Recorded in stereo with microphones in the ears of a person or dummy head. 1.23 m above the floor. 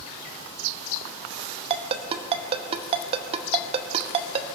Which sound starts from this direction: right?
A ringtone, at 1.7 s.